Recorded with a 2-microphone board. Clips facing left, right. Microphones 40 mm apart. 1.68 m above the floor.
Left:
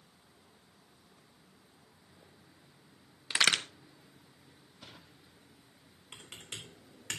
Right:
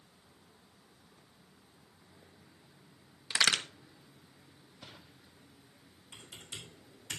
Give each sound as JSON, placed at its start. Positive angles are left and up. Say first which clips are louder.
{"t": 3.3, "sound": "a crack", "louder": "left 1 dB", "side_deg": 30, "distance_m": 1.1}
{"t": 6.1, "sound": "typing on a keyboard", "louder": "left 1 dB", "side_deg": 75, "distance_m": 3.5}